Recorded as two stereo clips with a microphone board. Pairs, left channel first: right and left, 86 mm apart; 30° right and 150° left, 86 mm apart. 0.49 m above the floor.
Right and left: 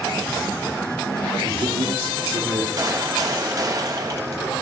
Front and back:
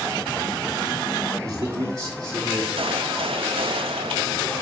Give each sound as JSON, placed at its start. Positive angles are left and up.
{"t": 1.4, "sound": "a man speaking", "azimuth_deg": 100, "distance_m": 5.0}
{"t": 2.8, "sound": "a gunshot", "azimuth_deg": 140, "distance_m": 1.0}